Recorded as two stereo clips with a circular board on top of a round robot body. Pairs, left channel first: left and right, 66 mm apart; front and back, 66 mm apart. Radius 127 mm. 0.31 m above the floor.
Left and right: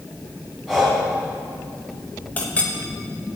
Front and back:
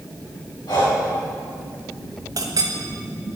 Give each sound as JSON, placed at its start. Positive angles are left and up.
{"t": 0.7, "sound": "breathing", "azimuth_deg": -5, "distance_m": 4.0}
{"t": 2.4, "sound": "a clink", "azimuth_deg": 155, "distance_m": 1.5}